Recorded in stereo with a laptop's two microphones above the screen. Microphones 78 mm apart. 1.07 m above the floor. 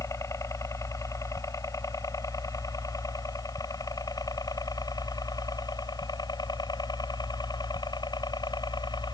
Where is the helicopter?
40° left (ahead or behind); by 9.1 s 70° left (ahead or behind).